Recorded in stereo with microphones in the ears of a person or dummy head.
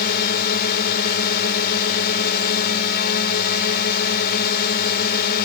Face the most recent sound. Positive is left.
turn(degrees=55)  # may be behind; listen again after turning